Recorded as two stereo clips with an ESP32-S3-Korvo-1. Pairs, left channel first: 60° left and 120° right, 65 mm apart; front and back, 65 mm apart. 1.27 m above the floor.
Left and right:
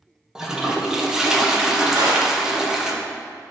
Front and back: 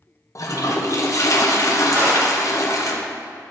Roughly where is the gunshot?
Behind right.